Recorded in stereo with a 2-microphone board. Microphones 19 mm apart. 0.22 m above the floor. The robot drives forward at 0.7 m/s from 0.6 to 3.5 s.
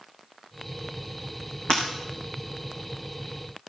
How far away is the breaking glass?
About 4 m.